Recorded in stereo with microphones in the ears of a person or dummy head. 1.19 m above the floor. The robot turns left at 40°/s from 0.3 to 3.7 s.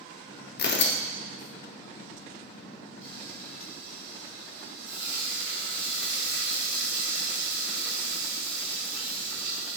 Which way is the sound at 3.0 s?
40° right (ahead or behind).